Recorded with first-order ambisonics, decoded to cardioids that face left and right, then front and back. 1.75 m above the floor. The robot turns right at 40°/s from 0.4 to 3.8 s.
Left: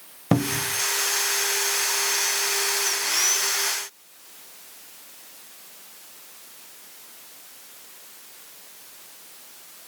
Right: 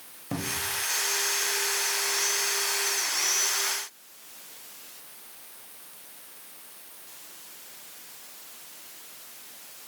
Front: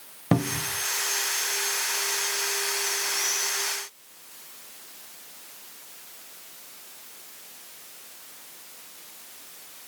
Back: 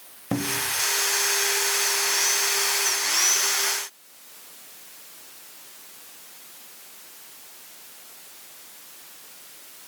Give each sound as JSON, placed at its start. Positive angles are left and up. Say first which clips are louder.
{"t": 0.3, "sound": "a cupboard door", "louder": "left 6 dB, back 1 dB", "azimuth_deg": 65, "distance_m": 0.6}